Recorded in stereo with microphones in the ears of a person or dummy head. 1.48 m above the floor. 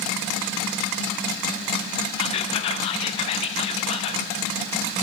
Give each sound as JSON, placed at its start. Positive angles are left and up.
{"t": 2.2, "sound": "whispering", "side_deg": 30, "distance_m": 0.7}